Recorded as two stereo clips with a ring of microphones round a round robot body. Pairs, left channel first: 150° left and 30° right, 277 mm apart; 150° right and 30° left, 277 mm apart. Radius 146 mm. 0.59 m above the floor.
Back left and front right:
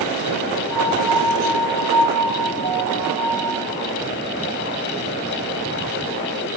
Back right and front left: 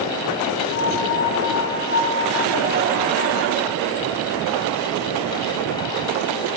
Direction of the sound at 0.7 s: 15° right.